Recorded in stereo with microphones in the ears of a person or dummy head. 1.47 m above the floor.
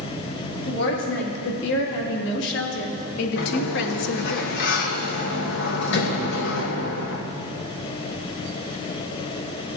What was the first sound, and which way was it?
A woman speaking, 65° left (ahead or behind).